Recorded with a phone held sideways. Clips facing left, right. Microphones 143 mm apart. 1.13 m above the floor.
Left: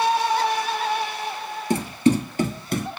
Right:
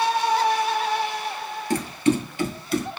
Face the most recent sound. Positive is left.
turn(degrees=50)  # may be behind; listen again after turning